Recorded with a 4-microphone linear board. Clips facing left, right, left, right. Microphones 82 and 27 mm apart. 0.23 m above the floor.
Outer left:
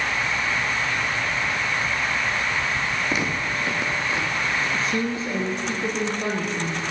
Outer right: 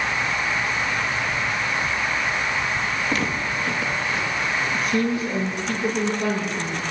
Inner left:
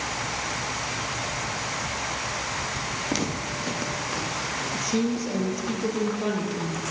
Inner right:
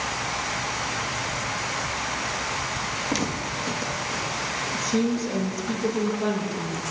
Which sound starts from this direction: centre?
Footsteps, at 3.1 s.